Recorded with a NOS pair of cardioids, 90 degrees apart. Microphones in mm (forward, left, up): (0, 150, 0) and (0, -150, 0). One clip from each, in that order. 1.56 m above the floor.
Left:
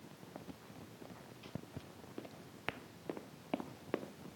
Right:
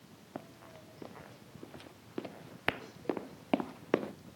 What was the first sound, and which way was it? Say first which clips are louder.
Running footsteps: right 7 dB; 50° right.